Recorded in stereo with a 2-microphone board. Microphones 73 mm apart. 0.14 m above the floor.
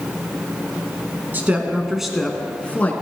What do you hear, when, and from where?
1.3 s a woman speaking: 25° right (ahead or behind), 1.1 m; by 3.0 s 25° left (ahead or behind), 1.3 m